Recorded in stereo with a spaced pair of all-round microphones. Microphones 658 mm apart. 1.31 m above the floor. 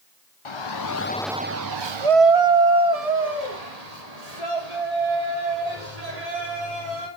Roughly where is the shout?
Left.